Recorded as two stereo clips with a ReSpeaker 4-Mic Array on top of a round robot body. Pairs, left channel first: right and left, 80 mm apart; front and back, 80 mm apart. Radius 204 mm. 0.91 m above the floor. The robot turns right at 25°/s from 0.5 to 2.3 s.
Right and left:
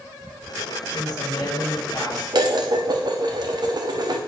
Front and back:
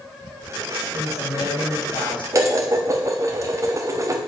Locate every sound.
0.9 s a woman speaking: 50° right, 4.5 m; by 2.2 s 20° right, 4.5 m
2.3 s dishes clattering: 125° left, 1.2 m